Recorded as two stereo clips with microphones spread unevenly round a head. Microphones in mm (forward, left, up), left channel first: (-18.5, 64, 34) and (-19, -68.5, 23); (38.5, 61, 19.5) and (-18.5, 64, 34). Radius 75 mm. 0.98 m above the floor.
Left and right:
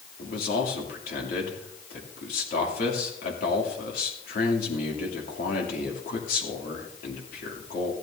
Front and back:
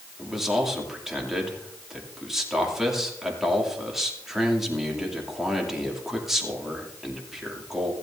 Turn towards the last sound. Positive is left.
turn(degrees=90)